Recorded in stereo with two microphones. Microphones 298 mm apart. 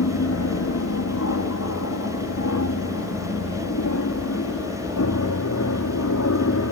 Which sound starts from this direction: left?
An aircraft, at 0.0 s.